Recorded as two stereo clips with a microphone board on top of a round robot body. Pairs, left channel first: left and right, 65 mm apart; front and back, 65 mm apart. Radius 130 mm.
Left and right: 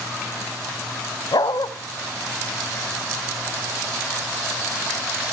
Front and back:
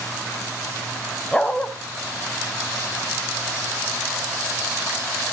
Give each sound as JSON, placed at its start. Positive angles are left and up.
{"t": 1.3, "sound": "a dog barking", "azimuth_deg": 75, "distance_m": 1.6}